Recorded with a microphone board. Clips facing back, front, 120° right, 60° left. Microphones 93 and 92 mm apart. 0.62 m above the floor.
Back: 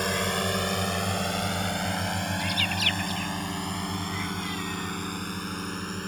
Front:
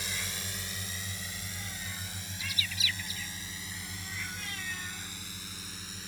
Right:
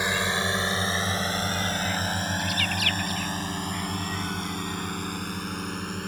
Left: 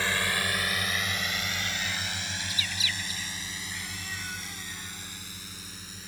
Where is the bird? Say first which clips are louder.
Back 11 dB, right 8 dB; 150° right.